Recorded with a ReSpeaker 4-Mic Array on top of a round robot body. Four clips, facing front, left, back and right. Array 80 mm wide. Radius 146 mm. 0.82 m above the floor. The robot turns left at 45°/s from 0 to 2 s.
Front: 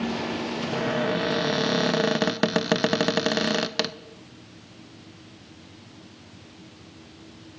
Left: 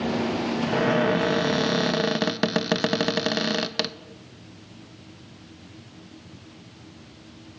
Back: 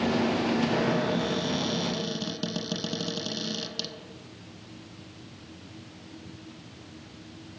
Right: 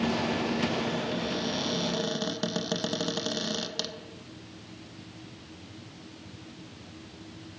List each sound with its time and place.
0.7 s a cupboard door: 90° left, 0.6 m; by 4.0 s 30° left, 0.6 m